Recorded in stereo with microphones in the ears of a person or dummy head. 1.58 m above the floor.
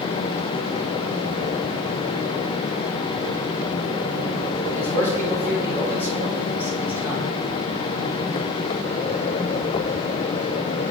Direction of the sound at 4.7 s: 15° right (ahead or behind).